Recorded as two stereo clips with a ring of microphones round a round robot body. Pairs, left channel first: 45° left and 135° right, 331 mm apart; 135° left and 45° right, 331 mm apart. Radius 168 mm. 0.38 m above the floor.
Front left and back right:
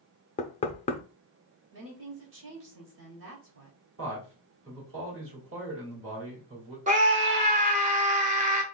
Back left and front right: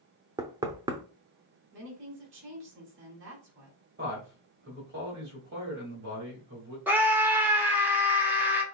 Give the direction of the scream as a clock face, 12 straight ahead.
4 o'clock.